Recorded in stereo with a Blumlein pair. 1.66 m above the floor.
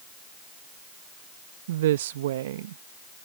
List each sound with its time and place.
1.7 s a woman speaking: 55° right